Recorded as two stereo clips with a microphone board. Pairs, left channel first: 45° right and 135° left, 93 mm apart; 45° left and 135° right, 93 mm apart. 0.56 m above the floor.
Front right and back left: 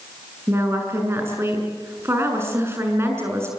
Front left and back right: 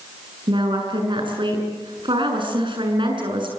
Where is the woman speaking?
165° right, 6.5 m.